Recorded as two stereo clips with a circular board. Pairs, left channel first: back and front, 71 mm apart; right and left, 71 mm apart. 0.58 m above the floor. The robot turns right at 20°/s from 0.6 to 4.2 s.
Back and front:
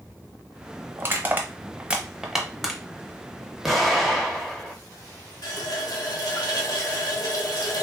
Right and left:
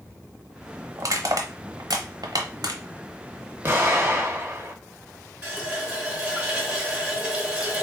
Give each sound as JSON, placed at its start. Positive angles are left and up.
{"t": 1.0, "sound": "crushing", "azimuth_deg": 55, "distance_m": 0.6}
{"t": 3.6, "sound": "an explosion", "azimuth_deg": 85, "distance_m": 0.9}
{"t": 5.4, "sound": "a running tap", "azimuth_deg": 165, "distance_m": 0.8}